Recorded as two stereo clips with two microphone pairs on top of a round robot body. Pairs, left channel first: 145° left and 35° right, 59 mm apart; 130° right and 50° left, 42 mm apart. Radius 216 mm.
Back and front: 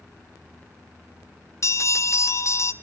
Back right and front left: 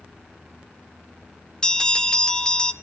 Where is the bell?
170° left, 1.7 m.